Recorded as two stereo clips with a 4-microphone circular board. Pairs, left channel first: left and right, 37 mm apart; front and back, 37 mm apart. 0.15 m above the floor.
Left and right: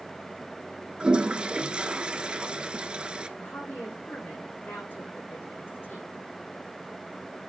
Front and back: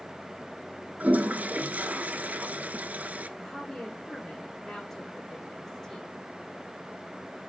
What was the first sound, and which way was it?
A toilet flushing, 145° right.